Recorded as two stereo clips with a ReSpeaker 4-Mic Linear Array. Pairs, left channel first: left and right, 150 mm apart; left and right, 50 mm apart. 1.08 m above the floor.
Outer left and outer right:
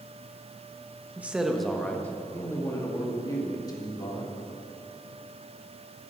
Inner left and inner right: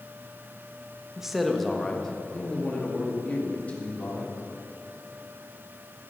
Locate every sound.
1.2 s a man speaking: 10° right (ahead or behind), 1.0 m; by 4.3 s 30° left (ahead or behind), 3 m